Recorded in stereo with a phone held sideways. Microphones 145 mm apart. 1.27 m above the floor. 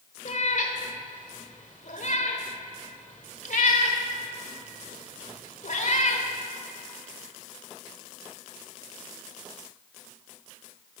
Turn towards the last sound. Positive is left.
turn(degrees=60)  # may be behind; listen again after turning